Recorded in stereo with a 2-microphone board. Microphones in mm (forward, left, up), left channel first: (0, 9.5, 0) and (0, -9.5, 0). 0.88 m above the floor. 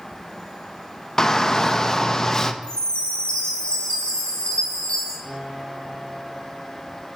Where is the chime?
60° left (ahead or behind), 2 m.